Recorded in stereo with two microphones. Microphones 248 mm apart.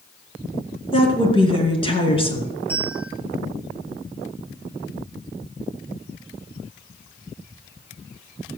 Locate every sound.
0.9 s a woman speaking: 20° left (ahead or behind), 3 m
2.7 s a bell: 5° left (ahead or behind), 8 m